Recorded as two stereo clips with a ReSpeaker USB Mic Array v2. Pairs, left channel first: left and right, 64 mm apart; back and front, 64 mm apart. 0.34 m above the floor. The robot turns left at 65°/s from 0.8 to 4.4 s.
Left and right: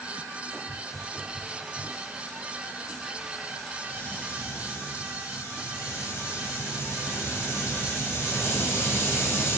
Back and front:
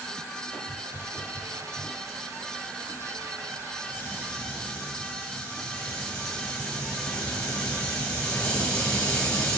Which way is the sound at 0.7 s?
10° right.